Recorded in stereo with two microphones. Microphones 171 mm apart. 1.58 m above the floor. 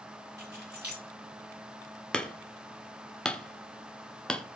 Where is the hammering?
5° left (ahead or behind), 0.7 m.